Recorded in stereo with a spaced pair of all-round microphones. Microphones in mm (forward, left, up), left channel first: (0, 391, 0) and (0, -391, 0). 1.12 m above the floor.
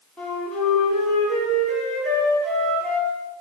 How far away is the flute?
About 0.7 m.